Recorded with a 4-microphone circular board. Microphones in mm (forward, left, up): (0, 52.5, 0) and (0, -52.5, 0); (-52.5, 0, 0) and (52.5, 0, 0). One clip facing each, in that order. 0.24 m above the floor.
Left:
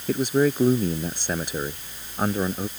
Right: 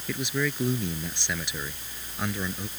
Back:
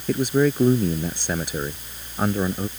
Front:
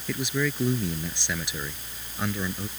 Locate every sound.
0.1 s a man speaking: 135° left